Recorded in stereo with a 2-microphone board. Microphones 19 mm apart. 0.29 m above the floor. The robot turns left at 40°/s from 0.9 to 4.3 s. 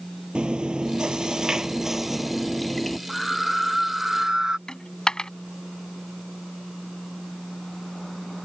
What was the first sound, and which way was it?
Chewing, 115° right.